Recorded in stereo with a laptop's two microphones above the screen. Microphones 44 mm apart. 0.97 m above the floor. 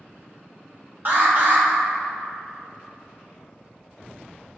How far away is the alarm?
About 2.5 m.